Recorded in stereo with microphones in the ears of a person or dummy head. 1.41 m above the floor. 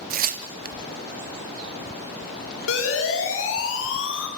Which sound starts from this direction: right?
Tearing paper, at 0.1 s.